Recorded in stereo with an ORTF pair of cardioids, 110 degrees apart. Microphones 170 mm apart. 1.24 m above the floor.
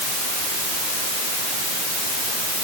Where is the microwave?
No microwave in this recording.